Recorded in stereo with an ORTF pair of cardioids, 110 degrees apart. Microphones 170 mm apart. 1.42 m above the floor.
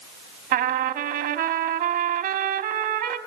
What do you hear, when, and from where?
0.5 s a trumpet: 60° right, 2.5 m